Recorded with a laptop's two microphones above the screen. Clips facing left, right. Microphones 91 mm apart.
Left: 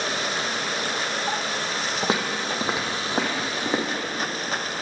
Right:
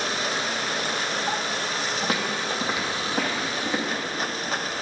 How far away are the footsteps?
About 2 m.